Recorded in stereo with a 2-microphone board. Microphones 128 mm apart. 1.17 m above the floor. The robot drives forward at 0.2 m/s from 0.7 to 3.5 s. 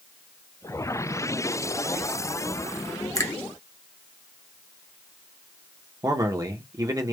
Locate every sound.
3.1 s a finger snap: 25° left (ahead or behind), 0.5 m
6.0 s a man speaking: 25° right (ahead or behind), 0.6 m